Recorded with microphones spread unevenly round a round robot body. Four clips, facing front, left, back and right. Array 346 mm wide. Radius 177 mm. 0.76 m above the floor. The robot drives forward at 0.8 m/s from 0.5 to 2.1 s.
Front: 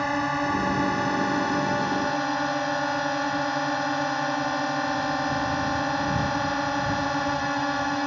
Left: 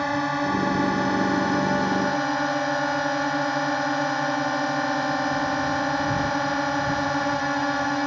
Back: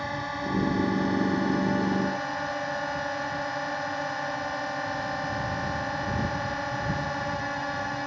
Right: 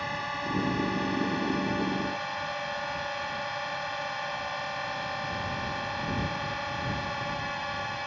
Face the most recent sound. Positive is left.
turn(degrees=60)